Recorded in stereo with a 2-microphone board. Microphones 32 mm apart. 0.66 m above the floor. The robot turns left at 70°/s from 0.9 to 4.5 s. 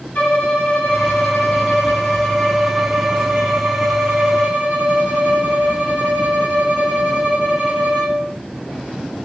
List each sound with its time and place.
0.1 s a violin: 130° left, 1.3 m; by 8.3 s 125° right, 1.3 m